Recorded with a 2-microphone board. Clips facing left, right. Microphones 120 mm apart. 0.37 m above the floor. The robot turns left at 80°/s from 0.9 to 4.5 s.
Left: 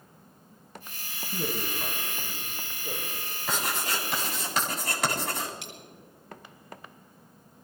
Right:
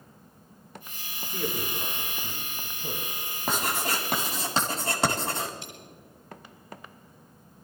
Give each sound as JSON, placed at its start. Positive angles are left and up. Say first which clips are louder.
{"t": 1.3, "sound": "a man speaking", "louder": "right 1 dB", "side_deg": 50, "distance_m": 2.5}
{"t": 3.5, "sound": "writing", "louder": "right 3 dB", "azimuth_deg": -65, "distance_m": 3.5}
{"t": 5.6, "sound": "a dropped coin", "louder": "even", "side_deg": 85, "distance_m": 4.0}